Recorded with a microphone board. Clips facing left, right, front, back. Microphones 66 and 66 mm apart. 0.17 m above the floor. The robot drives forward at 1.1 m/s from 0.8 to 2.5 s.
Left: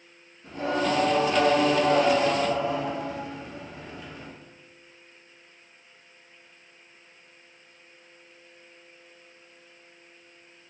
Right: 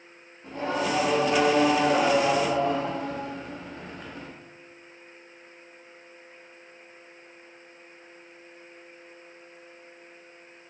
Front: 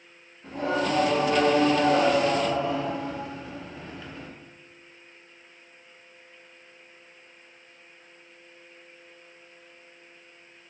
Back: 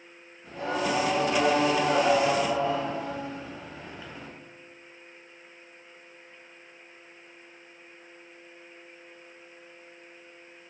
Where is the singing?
25° right, 1.9 m; by 4.3 s 105° right, 1.0 m.